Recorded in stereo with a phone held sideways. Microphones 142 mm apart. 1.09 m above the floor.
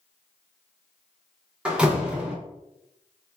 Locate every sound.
1.6 s a door slam: 5° right (ahead or behind), 0.8 m